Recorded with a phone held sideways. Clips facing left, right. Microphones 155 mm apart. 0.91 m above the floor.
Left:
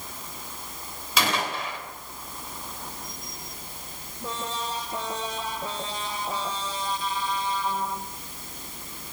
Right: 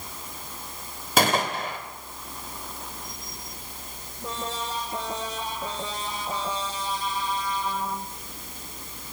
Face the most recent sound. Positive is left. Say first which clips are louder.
# right 4 dB
turn(degrees=-50)  # may be behind; listen again after turning